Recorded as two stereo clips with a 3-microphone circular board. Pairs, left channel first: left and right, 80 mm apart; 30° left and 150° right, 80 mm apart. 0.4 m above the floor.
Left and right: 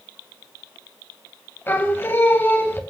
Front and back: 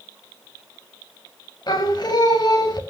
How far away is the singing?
About 3 m.